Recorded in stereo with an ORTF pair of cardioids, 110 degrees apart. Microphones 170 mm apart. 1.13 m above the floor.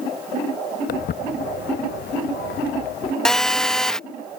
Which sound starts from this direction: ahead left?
Footsteps, at 0.9 s.